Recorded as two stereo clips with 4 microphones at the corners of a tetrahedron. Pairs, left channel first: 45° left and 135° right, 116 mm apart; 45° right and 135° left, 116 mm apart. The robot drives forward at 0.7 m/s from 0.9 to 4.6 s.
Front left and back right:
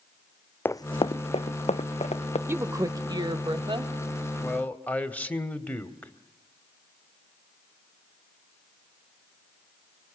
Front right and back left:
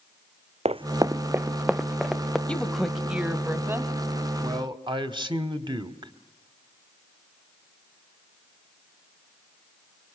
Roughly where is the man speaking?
Left.